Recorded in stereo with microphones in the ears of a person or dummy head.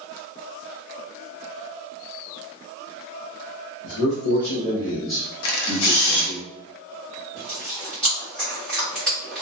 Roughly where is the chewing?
Centre.